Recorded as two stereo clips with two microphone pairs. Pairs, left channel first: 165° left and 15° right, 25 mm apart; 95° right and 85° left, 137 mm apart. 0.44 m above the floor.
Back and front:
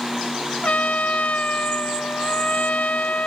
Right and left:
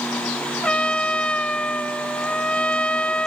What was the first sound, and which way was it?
A trumpet, 175° right.